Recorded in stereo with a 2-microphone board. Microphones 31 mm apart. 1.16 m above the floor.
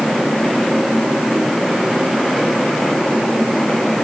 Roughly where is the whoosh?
I don't hear a whoosh.